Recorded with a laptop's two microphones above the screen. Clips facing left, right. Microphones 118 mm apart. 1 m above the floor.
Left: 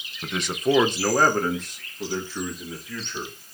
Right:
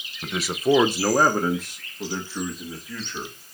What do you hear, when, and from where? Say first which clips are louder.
0.2 s a man speaking: right 1 dB; centre (ahead or behind), 0.9 m; by 3.3 s 5° right (ahead or behind), 2.5 m